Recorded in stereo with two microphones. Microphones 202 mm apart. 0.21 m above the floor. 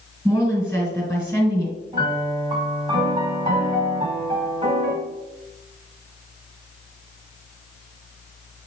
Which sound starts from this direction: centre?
A woman speaking, at 0.2 s.